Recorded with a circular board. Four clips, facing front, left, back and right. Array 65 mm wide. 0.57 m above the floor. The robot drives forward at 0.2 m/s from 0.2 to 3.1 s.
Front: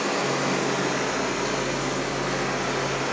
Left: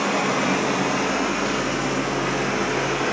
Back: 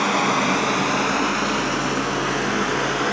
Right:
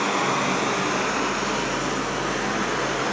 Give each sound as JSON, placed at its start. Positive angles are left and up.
{"t": 0.0, "sound": "running water", "azimuth_deg": -170, "distance_m": 1.2}